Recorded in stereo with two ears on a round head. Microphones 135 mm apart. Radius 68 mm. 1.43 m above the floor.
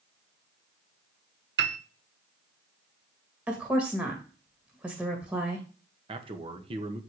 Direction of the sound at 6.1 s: 35° right (ahead or behind).